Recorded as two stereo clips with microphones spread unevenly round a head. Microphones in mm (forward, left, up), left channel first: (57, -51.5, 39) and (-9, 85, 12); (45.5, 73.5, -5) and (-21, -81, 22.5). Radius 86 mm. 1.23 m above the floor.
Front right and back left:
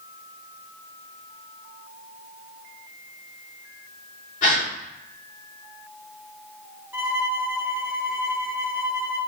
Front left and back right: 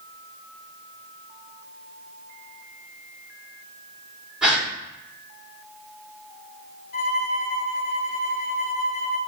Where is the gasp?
25° right, 3 m.